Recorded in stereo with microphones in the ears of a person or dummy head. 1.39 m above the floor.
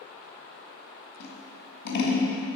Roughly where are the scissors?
Left.